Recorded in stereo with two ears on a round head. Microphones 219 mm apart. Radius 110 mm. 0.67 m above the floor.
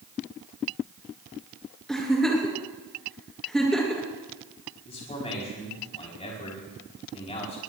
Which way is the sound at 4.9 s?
25° left (ahead or behind).